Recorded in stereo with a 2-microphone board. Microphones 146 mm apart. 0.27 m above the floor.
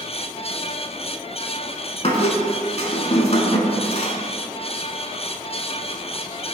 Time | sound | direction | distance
2.0 | a squeak | 45° left (ahead or behind) | 0.8 m